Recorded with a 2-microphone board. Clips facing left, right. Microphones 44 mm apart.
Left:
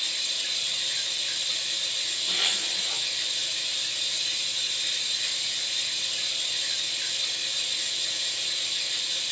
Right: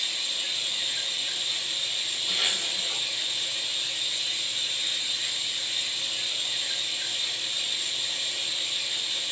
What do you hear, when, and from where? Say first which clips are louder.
0.0 s running water: right 1 dB; 35° right (ahead or behind), 2.5 m
2.3 s a zipper: even; centre (ahead or behind), 1.5 m